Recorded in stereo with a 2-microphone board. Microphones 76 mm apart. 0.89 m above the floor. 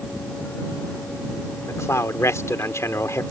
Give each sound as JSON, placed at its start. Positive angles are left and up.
{"t": 1.7, "sound": "a man speaking", "side_deg": 35}